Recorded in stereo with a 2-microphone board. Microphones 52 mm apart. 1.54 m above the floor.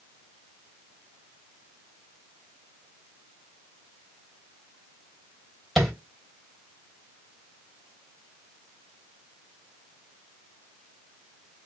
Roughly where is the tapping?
Centre.